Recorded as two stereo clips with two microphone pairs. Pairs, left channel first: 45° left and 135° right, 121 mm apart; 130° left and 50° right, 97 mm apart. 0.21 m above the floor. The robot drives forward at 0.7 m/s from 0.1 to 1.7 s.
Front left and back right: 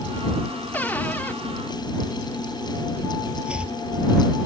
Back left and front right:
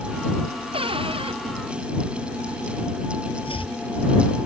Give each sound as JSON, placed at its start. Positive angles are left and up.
{"t": 0.7, "sound": "a cupboard door", "azimuth_deg": -30}
{"t": 3.5, "sound": "chopping", "azimuth_deg": 145}